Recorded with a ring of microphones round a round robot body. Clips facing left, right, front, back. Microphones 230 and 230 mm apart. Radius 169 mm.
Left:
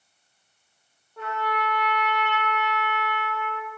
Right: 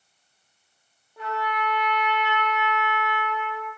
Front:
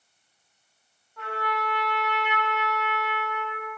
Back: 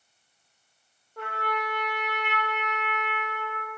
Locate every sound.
1.2 s a trumpet: 165° right, 0.9 m